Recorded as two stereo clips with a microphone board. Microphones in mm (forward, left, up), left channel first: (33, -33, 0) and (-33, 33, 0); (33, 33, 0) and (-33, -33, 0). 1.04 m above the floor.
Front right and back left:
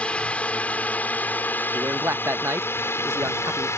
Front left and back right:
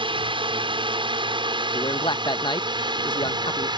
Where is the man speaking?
75° left.